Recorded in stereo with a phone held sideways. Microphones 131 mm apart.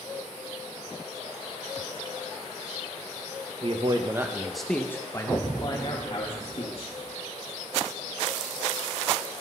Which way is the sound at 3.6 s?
45° right (ahead or behind).